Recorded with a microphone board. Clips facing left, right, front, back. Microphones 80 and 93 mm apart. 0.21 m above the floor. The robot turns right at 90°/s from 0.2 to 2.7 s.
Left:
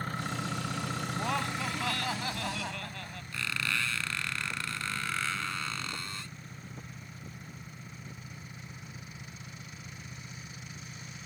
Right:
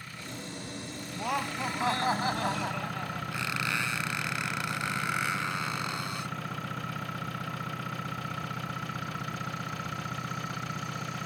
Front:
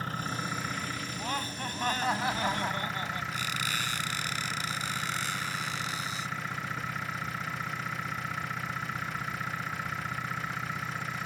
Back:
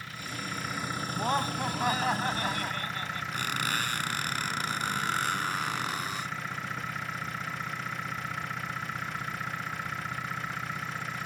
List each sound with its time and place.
0.0 s an engine running: 45° left; by 11.3 s 90° right
1.1 s laughter: 175° right; by 3.2 s 35° right
3.3 s a squeak: 155° right